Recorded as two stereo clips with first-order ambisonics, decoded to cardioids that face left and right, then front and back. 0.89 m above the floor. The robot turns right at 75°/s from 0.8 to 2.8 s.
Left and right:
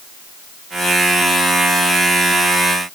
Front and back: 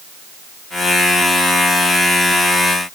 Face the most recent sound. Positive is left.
No sound to turn to.